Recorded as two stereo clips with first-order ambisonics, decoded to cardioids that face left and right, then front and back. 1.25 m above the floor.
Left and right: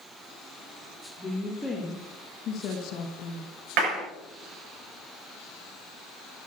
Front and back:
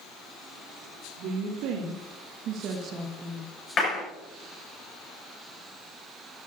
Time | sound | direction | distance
1.2 | a woman speaking | straight behind | 2.5 m
3.8 | a clap | 65° right | 7 m